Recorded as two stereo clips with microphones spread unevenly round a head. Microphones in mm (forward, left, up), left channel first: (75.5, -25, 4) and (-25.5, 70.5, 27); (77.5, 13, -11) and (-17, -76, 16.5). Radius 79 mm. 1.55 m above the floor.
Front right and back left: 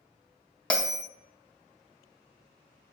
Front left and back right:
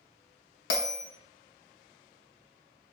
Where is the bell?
40° left, 0.6 m.